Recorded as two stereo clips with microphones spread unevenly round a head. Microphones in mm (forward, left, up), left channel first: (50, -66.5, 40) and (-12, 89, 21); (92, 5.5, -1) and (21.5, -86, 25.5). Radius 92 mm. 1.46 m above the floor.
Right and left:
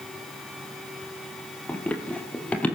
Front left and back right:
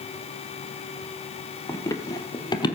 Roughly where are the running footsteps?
Ahead.